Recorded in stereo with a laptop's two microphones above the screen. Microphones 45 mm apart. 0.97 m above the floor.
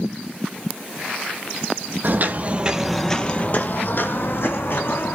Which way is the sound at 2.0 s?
50° right (ahead or behind).